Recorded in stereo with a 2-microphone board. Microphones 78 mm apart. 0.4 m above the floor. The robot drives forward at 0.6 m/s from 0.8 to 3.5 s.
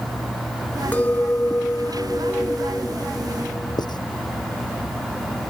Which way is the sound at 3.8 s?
70° left (ahead or behind).